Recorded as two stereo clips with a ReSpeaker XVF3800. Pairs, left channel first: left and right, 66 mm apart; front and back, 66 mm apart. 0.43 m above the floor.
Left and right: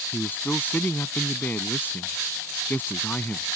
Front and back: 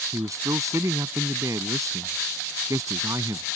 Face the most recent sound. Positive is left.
turn(degrees=150)